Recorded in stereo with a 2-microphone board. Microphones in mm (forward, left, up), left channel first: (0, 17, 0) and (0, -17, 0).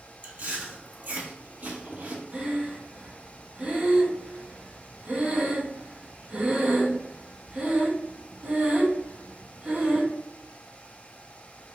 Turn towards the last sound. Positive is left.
turn(degrees=-40)  # may be behind; listen again after turning